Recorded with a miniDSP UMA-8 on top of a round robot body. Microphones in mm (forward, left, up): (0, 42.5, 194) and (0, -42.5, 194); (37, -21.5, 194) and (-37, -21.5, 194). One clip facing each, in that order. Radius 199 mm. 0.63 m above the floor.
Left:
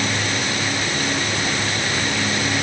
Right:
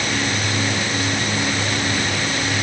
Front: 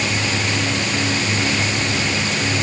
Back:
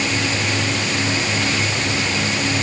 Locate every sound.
Only background noise.